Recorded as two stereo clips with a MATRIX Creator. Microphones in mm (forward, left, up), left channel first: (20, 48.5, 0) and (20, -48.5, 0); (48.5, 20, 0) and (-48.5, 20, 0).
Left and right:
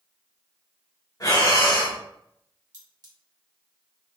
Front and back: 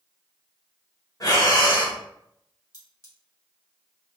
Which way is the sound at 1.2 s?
40° left.